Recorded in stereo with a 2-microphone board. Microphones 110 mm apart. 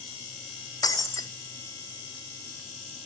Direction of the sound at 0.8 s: 35° left (ahead or behind).